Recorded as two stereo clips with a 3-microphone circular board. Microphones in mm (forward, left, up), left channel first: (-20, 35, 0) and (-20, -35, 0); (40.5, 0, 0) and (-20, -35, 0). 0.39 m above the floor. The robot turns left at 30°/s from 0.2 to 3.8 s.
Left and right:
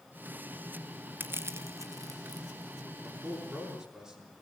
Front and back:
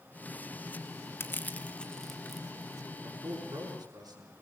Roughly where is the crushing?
Ahead right.